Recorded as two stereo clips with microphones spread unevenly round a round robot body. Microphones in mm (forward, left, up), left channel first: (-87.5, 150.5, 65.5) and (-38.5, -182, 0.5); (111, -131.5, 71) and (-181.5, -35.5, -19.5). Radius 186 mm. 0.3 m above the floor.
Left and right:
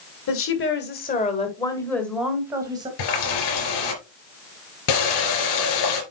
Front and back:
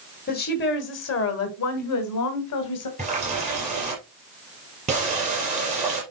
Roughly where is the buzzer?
I don't hear a buzzer.